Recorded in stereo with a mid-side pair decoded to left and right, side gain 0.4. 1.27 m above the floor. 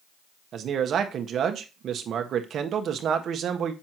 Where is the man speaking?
65° right, 1.5 m.